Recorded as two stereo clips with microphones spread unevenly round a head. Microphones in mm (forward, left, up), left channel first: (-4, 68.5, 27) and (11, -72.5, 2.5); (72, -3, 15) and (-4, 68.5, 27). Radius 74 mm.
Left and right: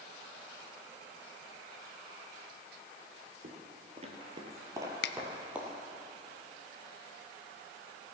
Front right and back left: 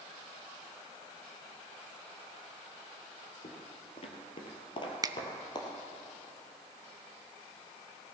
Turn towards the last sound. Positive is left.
turn(degrees=80)